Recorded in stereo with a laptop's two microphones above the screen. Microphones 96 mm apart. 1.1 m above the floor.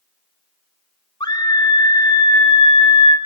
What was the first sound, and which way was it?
A scream, 50° left (ahead or behind).